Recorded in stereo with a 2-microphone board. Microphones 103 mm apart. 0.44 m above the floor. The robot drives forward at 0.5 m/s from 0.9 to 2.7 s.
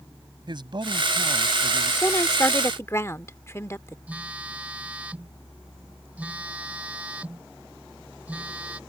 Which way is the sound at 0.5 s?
50° right (ahead or behind).